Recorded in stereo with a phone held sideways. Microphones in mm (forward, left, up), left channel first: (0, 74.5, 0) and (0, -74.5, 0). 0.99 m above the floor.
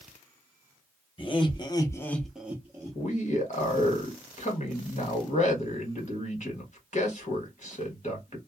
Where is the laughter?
35° left (ahead or behind), 1.0 m; by 3.0 s 25° right (ahead or behind), 0.9 m.